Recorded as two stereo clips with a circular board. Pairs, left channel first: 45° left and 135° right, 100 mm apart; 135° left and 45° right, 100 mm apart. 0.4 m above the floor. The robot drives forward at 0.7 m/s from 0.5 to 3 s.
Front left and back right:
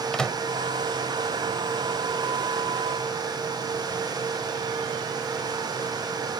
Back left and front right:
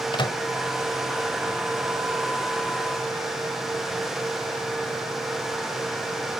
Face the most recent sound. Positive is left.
turn(degrees=160)